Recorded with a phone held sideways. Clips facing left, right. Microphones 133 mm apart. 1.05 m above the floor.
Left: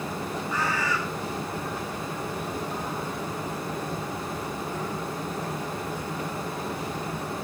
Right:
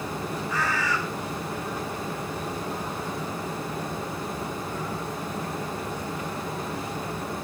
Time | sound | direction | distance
0.5 | a bird | 85° right | 8.5 m